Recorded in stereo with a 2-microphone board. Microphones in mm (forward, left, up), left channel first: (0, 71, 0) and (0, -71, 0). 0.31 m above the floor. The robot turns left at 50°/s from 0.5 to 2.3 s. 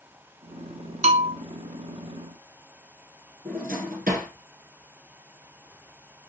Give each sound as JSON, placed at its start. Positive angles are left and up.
{"t": 1.0, "sound": "a bell", "side_deg": -50, "distance_m": 0.7}
{"t": 3.5, "sound": "a drawer", "side_deg": -80, "distance_m": 2.5}